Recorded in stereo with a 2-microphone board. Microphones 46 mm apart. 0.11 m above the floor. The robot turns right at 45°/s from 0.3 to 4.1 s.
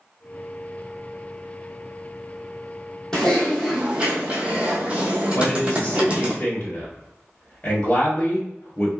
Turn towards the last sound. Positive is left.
turn(degrees=35)  # may be behind; listen again after turning